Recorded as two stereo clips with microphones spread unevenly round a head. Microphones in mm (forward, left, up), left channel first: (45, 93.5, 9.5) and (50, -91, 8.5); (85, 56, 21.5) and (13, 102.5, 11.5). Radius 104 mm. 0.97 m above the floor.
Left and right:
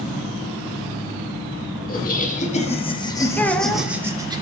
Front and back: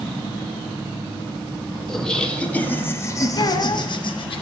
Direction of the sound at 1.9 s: 55° left.